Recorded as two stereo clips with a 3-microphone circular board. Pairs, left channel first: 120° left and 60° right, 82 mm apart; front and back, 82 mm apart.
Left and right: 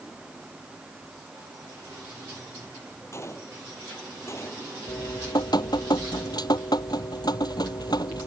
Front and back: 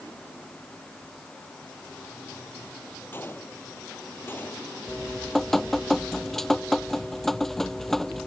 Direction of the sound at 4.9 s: 85° left.